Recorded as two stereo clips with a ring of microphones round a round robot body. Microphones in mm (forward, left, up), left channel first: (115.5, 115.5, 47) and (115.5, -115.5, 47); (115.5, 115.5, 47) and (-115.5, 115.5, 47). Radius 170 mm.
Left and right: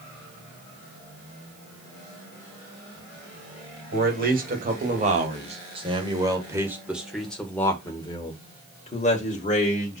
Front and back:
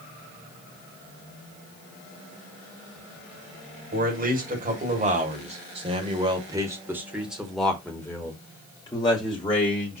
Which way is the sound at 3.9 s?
130° right.